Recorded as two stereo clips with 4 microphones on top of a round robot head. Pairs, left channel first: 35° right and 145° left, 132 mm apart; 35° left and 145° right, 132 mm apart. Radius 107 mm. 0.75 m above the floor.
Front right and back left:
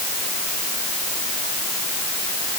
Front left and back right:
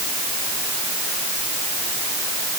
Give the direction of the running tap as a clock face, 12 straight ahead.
No running tap in this recording.